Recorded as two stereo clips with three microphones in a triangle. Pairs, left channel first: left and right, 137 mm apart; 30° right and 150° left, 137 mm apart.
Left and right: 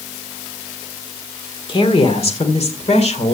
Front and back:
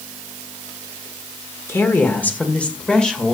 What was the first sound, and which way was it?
A woman speaking, 40° left.